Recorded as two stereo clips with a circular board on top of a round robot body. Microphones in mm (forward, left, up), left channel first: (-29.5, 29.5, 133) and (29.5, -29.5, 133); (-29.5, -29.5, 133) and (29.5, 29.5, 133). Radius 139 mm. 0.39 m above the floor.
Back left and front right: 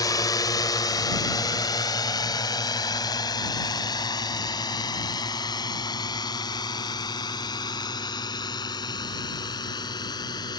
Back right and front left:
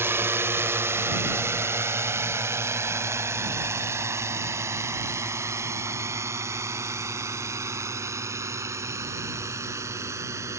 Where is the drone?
105° left; by 10.6 s 100° left.